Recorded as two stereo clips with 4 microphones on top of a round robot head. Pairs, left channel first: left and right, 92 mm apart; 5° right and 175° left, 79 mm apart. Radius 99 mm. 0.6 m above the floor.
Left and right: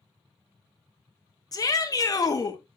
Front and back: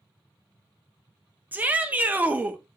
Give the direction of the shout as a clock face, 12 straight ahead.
8 o'clock.